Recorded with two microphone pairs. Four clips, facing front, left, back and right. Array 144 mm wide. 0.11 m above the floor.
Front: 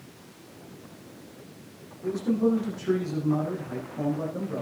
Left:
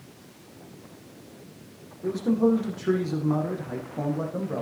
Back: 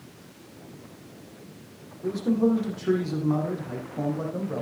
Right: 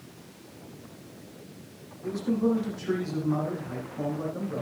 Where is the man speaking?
130° left, 5.5 m.